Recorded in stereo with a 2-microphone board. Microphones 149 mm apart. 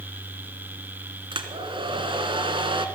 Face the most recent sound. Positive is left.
turn(degrees=-35)  # may be behind; listen again after turning